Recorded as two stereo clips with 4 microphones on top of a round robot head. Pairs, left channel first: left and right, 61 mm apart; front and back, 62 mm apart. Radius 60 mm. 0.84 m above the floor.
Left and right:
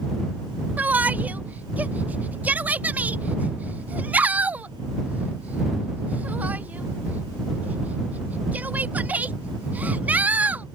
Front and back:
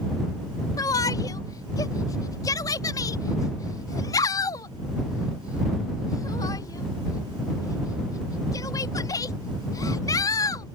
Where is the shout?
30° right.